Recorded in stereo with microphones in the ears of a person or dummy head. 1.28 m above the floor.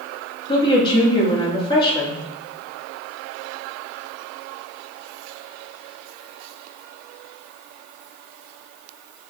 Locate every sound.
0.5 s a woman speaking: 30° left (ahead or behind), 2.5 m